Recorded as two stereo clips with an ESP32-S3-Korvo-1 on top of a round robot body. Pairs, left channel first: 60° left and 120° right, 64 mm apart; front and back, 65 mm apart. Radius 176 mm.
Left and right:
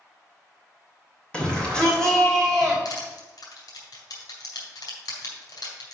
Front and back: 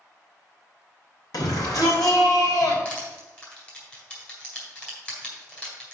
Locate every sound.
1.3 s a shout: 15° right, 3 m; by 2.8 s 25° right, 3.5 m
2.9 s crushing: 65° left, 3 m